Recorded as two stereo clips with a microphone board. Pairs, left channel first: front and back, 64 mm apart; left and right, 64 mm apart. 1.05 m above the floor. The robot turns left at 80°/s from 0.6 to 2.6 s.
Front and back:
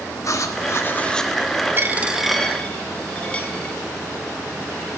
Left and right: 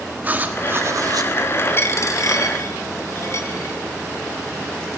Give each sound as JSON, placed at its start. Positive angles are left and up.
{"t": 0.2, "sound": "writing", "azimuth_deg": -30, "distance_m": 1.0}
{"t": 1.8, "sound": "a dropped coin", "azimuth_deg": 135, "distance_m": 1.1}